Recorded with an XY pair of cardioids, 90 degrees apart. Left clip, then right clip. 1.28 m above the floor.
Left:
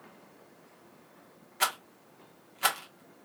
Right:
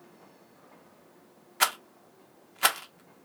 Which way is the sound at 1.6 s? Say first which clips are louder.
Right 3 dB; 45° right.